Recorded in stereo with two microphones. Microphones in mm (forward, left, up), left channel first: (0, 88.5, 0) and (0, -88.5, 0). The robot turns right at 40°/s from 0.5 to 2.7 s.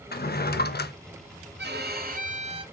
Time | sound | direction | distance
0.1 | a drawer | 65° left (ahead or behind) | 0.5 m
1.6 | a violin | 75° right | 0.8 m